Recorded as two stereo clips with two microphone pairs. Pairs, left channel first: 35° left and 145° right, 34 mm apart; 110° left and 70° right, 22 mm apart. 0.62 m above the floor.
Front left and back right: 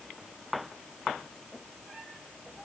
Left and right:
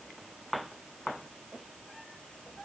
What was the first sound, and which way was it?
Only background noise.